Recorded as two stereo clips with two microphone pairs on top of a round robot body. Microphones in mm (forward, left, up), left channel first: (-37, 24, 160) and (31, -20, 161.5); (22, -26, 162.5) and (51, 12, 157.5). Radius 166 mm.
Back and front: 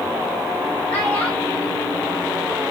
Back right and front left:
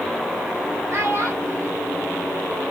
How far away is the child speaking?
About 2.5 m.